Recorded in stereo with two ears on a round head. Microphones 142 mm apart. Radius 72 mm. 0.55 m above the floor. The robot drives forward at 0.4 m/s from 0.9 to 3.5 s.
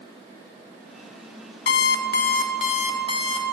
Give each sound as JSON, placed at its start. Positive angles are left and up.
{"t": 1.7, "sound": "an alarm clock", "side_deg": 75, "distance_m": 0.6}